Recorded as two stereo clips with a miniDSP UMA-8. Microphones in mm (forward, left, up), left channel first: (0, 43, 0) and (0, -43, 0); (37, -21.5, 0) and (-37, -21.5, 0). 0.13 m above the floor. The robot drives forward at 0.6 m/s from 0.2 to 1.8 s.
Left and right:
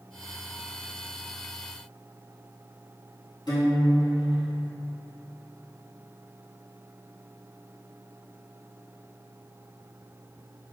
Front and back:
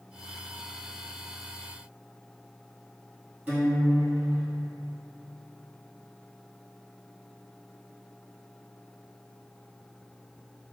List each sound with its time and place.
3.5 s a guitar: 120° left, 1.5 m